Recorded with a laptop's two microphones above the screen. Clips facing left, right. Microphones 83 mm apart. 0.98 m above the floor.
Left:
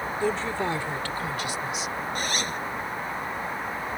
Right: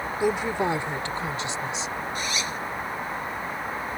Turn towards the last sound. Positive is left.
turn(degrees=50)  # may be behind; listen again after turning